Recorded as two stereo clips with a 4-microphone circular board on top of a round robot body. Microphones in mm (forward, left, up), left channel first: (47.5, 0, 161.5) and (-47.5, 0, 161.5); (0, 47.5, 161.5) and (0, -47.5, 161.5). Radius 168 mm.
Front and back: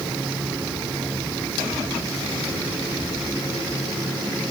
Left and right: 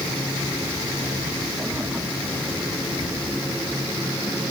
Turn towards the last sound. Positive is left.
No sound to turn to.